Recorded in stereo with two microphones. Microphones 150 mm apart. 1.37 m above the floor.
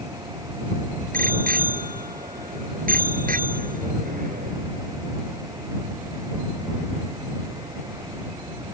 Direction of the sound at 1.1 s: 70° right (ahead or behind).